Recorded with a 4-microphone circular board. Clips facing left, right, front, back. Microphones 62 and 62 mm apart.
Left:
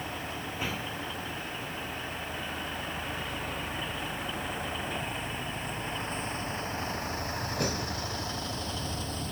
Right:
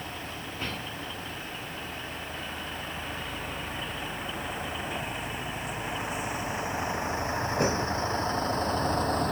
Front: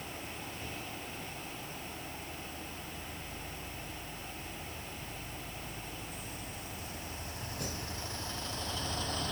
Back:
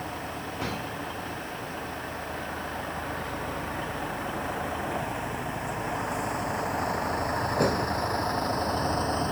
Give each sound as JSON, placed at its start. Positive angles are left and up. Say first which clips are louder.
{"t": 0.0, "sound": "a vehicle", "louder": "left 1 dB, back 9 dB", "azimuth_deg": 175}